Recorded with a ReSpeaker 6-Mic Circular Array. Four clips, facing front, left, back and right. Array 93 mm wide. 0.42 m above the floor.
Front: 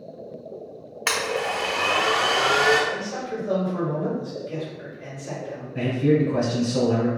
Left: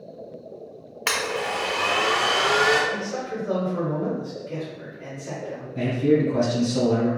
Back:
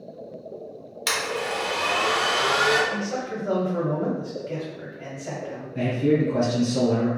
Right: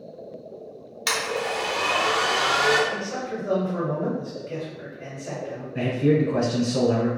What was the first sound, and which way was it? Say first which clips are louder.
A blender: even, front 2 dB; 40° left.